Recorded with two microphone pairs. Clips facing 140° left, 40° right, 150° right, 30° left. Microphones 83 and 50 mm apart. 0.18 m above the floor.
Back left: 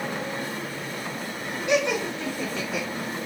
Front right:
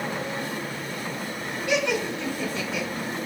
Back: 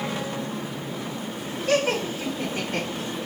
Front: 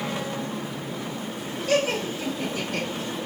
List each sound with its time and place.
1.7 s laughter: 150° right, 1.9 m; by 2.9 s straight behind, 1.7 m